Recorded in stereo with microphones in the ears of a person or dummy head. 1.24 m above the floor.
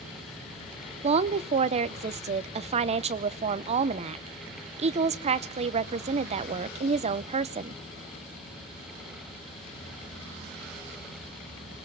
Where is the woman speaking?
30° right (ahead or behind), 0.7 m.